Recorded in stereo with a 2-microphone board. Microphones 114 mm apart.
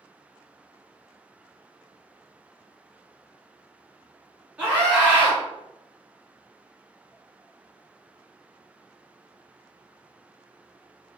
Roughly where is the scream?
Centre.